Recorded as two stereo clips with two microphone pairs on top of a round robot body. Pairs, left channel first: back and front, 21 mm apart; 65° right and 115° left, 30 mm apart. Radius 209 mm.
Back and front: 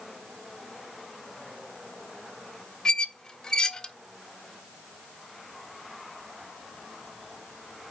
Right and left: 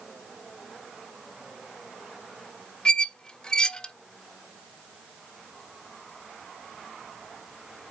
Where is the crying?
No crying in this recording.